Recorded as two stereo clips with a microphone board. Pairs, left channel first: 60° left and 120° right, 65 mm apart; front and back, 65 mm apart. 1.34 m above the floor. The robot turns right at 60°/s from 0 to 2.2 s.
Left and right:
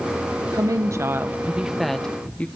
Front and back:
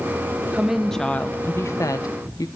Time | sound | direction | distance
0.5 | a woman speaking | 105° right | 1.2 m